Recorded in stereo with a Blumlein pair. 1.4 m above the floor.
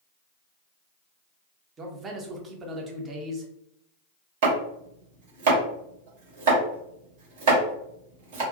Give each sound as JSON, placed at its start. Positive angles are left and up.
{"t": 1.8, "sound": "a man speaking", "azimuth_deg": -25, "distance_m": 0.7}
{"t": 4.4, "sound": "chopping", "azimuth_deg": -55, "distance_m": 1.0}